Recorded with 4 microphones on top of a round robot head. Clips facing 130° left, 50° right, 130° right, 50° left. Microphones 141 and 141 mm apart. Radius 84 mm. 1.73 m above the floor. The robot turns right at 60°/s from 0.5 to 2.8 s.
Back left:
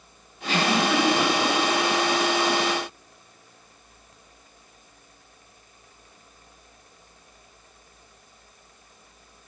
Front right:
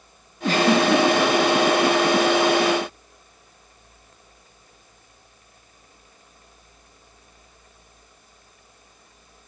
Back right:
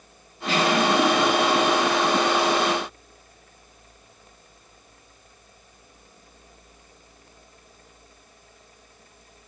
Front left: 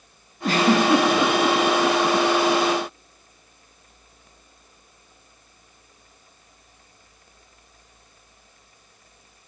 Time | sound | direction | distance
0.4 | a giggle | straight ahead | 3.5 m